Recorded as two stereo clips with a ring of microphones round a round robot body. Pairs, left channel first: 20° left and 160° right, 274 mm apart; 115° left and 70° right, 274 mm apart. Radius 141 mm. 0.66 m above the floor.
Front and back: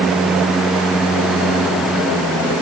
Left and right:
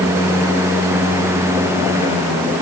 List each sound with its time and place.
Only background noise.